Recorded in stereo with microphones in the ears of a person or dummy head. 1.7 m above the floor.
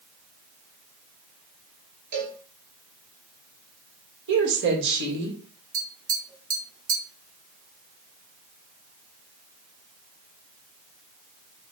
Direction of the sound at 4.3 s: 70° right (ahead or behind).